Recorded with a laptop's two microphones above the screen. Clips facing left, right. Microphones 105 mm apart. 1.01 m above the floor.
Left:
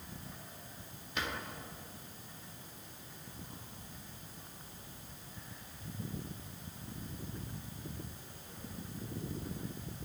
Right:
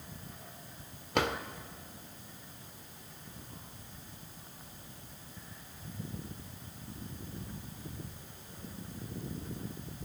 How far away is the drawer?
About 1.3 m.